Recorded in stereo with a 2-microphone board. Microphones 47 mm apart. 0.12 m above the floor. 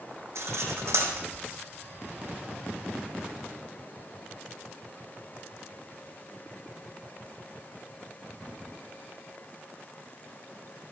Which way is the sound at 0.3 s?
80° right.